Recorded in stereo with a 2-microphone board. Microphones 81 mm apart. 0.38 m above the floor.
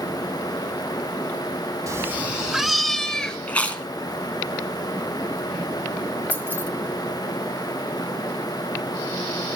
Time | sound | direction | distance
1.9 | a cat meowing | 45° right (ahead or behind) | 0.6 m
3.5 | chewing | 20° left (ahead or behind) | 2 m
6.3 | keys jangling | 25° left (ahead or behind) | 1.8 m